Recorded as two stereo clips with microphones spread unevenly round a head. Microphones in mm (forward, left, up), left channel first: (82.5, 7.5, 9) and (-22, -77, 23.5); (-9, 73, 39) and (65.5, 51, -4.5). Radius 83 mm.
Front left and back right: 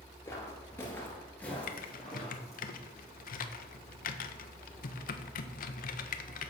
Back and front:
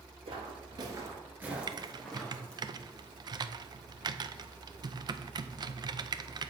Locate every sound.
0.2 s footsteps: 25° right, 1.7 m; by 2.7 s 135° left, 2.5 m
1.7 s typing on a keyboard: 25° left, 0.6 m